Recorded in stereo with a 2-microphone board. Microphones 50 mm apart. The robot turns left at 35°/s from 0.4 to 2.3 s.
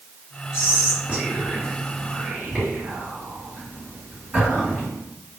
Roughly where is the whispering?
Centre.